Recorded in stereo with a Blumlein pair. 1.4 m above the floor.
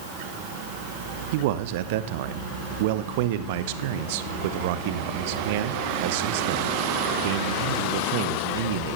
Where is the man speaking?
50° right, 0.8 m.